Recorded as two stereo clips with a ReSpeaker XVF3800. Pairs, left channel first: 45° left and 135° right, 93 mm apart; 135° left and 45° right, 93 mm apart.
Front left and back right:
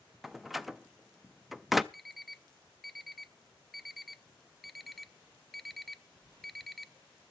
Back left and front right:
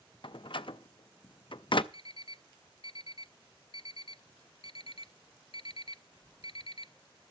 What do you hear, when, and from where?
0.2 s a door slam: 140° left, 0.5 m
1.9 s an alarm clock: 135° left, 0.5 m